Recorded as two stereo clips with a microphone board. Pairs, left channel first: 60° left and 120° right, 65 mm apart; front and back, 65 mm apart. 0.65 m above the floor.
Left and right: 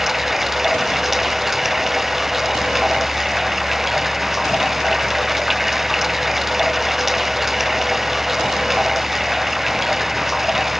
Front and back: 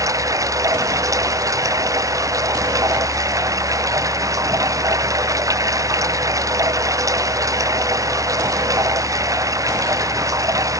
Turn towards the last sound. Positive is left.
turn(degrees=155)